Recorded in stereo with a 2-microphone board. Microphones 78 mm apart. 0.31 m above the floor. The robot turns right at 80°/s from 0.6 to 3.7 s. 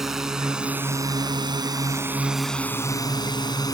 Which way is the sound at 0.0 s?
5° right (ahead or behind).